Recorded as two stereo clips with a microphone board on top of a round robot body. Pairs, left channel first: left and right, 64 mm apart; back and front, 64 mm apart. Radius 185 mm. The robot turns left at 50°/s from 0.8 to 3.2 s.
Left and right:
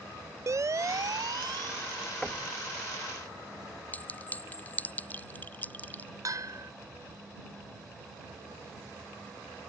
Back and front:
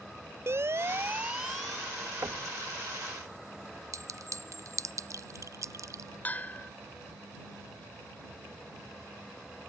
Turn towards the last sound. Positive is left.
turn(degrees=-115)